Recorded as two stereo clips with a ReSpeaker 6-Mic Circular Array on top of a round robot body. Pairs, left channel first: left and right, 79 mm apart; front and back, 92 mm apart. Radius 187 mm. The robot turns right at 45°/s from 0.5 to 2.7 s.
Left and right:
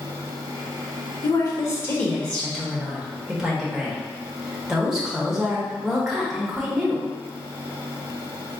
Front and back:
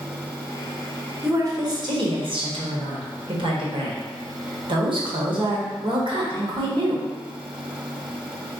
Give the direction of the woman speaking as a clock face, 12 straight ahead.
8 o'clock.